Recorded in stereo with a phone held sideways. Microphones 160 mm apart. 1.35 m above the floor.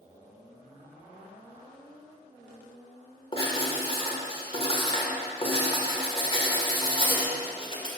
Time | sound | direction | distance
3.3 | writing | 35° left (ahead or behind) | 1.4 m